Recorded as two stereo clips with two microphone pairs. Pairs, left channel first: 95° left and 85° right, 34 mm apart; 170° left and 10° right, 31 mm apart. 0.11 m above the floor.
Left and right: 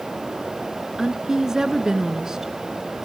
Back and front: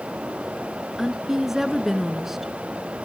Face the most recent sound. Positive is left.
turn(degrees=-60)